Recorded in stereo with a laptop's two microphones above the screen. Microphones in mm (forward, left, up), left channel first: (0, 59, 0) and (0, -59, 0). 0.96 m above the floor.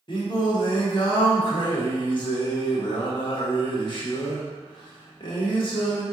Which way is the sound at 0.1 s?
45° left (ahead or behind).